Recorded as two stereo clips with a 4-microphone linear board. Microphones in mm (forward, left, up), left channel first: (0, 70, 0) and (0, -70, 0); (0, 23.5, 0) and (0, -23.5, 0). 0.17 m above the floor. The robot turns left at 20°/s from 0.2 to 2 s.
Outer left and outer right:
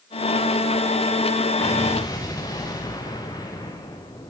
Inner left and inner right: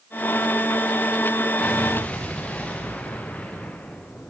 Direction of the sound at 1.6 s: 15° left (ahead or behind).